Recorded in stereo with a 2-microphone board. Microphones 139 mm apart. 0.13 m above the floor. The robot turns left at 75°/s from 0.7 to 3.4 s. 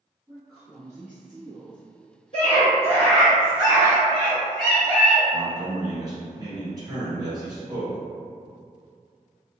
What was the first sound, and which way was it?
A woman speaking, 125° right.